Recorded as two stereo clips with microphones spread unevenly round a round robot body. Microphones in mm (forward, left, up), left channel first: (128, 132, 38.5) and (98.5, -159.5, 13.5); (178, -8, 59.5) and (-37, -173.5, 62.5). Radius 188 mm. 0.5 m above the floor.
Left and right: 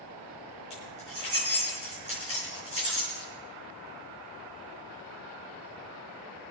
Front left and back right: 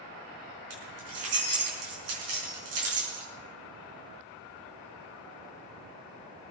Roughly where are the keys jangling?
Behind.